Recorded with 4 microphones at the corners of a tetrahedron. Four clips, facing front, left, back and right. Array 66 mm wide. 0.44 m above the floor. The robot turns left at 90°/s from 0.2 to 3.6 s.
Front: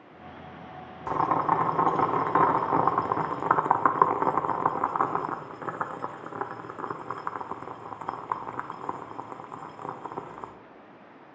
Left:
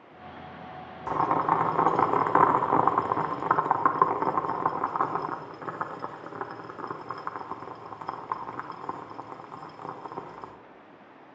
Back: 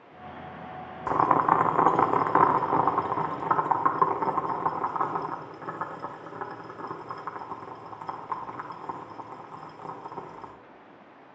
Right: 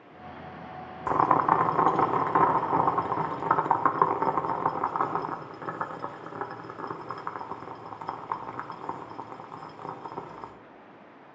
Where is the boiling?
125° right, 0.7 m; by 10.5 s 5° left, 0.7 m.